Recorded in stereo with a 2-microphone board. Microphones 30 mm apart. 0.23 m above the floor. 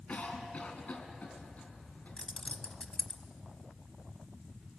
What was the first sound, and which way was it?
A cough, 55° left (ahead or behind).